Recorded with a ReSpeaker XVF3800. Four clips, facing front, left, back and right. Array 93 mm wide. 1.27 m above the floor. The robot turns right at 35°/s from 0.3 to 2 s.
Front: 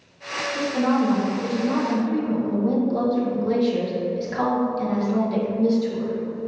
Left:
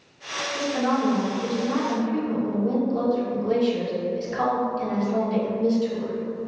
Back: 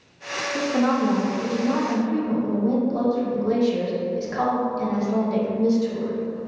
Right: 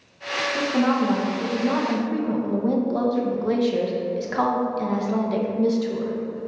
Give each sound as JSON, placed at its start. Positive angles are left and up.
{"t": 0.6, "sound": "a woman speaking", "azimuth_deg": -150, "distance_m": 1.0}